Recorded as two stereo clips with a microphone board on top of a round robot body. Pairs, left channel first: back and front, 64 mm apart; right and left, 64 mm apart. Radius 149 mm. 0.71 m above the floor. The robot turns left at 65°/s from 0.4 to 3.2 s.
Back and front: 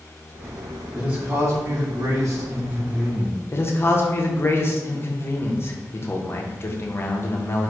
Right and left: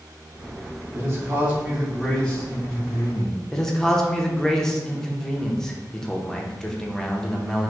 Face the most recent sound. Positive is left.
turn(degrees=-165)